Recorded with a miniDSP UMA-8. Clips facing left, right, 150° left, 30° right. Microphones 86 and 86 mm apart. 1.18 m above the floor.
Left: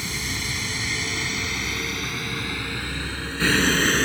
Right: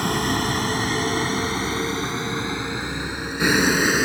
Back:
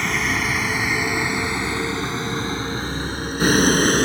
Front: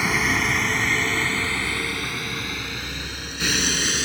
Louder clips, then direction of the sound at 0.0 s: Right 10 dB, even; 115° right.